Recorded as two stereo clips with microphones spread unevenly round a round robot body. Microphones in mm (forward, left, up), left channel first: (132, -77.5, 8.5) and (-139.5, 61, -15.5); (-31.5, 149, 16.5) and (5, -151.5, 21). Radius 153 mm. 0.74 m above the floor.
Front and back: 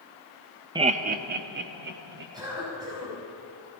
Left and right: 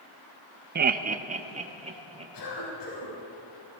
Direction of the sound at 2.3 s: 75° left.